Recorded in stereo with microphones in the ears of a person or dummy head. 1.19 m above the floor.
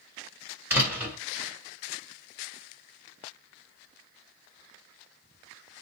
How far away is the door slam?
About 1.2 m.